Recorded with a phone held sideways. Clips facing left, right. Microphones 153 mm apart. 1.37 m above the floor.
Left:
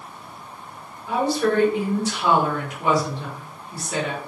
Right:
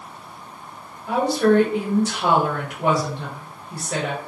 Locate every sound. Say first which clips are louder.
1.1 s a woman speaking: right 4 dB; 60° right (ahead or behind), 1.2 m